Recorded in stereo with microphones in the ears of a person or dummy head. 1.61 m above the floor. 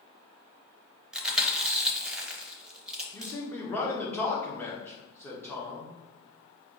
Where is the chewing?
5° right (ahead or behind), 0.7 m.